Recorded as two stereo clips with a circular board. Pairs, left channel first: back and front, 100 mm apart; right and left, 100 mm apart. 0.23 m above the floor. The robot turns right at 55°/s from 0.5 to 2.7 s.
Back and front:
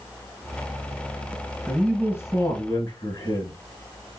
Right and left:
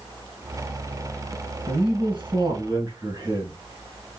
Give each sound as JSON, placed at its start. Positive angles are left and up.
{"t": 1.7, "sound": "a man speaking", "azimuth_deg": 85, "distance_m": 2.0}